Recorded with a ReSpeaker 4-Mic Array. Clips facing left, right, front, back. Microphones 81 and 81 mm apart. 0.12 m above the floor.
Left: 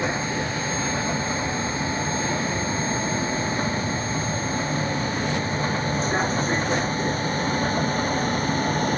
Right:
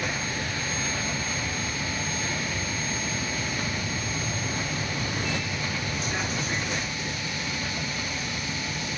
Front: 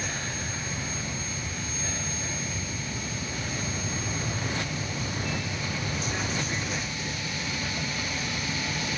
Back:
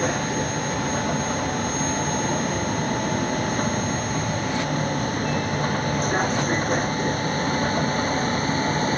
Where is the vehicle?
150° left; by 9.0 s 135° left.